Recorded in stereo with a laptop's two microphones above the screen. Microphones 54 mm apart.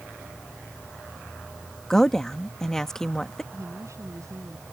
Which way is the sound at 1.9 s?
10° left (ahead or behind).